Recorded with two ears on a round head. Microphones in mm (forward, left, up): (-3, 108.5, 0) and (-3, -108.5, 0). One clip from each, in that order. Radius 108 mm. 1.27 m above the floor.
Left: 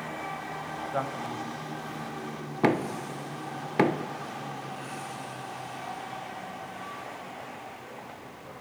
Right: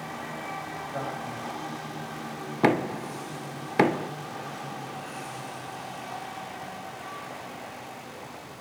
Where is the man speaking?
90° left, 8 m.